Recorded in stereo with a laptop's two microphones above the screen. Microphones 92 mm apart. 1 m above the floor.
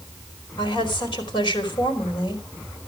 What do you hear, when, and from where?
0.6 s a woman speaking: 55° left (ahead or behind), 3 m